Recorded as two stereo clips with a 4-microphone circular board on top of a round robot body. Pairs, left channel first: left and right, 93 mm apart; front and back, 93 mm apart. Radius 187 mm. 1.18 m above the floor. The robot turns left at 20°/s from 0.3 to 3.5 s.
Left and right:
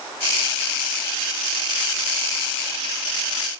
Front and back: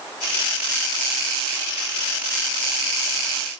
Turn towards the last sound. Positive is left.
No sound to turn to.